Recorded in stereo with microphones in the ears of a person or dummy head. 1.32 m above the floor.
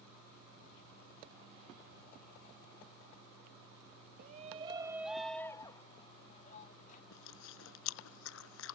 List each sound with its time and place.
4.2 s a shout: 45° right (ahead or behind); by 7.0 s 45° left (ahead or behind)
7.1 s chewing: 80° left